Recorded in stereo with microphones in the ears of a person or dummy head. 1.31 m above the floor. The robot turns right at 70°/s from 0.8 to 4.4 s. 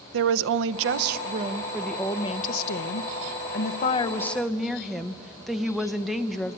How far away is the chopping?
I don't hear chopping.